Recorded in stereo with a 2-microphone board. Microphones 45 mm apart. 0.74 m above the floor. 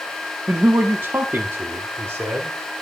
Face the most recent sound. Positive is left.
turn(degrees=-65)  # may be behind; listen again after turning